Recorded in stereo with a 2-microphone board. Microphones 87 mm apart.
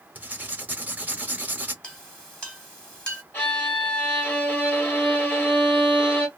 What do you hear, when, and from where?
0.1 s writing: 20° right (ahead or behind), 0.7 m
1.8 s a clink: 10° left (ahead or behind), 1.4 m
3.3 s a violin: 20° left (ahead or behind), 1.5 m